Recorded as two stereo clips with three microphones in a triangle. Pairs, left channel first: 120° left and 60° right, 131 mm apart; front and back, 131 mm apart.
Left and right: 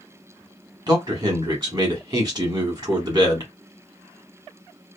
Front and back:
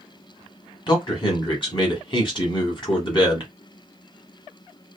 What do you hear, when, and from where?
0.9 s a man speaking: 20° right, 1.3 m